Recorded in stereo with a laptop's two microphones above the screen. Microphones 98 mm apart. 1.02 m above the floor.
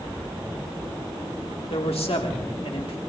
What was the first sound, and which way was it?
A man speaking, 85° left.